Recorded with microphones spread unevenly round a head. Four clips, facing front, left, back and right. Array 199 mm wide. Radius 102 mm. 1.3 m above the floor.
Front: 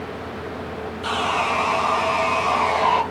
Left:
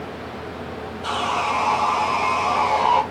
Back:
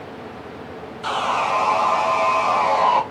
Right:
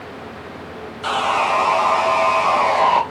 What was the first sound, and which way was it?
Sawing, 100° right.